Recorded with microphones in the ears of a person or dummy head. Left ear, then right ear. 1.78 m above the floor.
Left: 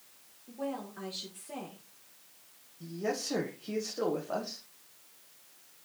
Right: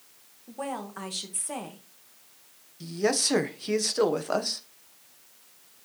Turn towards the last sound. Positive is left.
turn(degrees=-65)  # may be behind; listen again after turning